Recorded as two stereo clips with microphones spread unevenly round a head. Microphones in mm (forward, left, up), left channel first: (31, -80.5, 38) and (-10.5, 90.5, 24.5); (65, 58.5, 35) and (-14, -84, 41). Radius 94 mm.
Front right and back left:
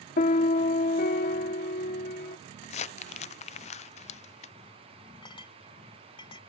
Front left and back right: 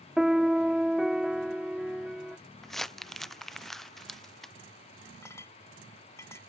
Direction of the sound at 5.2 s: 15° right.